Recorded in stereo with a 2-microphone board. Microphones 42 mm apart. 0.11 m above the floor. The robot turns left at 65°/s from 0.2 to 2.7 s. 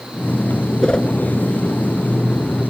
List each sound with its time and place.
0.8 s a whoosh: 25° left (ahead or behind), 0.8 m